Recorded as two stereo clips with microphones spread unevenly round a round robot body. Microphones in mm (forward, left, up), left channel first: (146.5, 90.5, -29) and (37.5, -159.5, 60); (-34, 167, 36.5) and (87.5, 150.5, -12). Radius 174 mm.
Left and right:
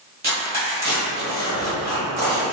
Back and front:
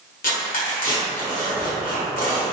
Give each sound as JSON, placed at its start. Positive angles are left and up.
{"t": 0.2, "sound": "tearing paper", "azimuth_deg": 165, "distance_m": 1.4}